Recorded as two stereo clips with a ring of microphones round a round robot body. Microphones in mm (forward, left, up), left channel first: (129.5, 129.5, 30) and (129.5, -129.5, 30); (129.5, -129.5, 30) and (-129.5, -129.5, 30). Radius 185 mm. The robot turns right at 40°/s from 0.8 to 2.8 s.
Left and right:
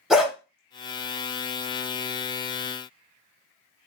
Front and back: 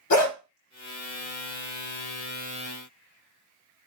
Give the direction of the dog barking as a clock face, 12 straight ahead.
12 o'clock.